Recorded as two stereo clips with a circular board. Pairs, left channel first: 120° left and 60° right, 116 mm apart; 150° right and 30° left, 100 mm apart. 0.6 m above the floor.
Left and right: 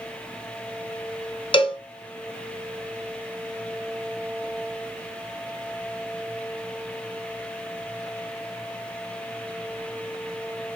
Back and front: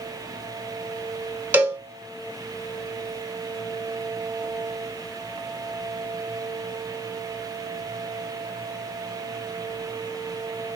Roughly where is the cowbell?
Left.